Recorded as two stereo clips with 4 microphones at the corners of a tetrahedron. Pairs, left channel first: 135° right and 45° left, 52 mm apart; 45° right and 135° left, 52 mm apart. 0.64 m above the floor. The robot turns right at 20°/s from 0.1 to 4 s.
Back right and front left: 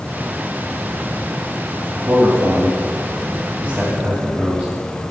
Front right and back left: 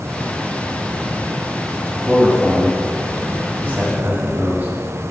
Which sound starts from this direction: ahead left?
A man speaking, at 2.0 s.